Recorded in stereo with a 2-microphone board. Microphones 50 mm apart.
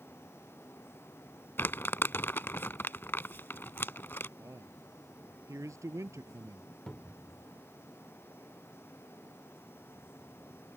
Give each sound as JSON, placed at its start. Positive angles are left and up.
{"t": 1.6, "sound": "crumpling", "side_deg": 50}
{"t": 4.4, "sound": "a man speaking", "side_deg": -85}
{"t": 6.9, "sound": "a cupboard door", "side_deg": 15}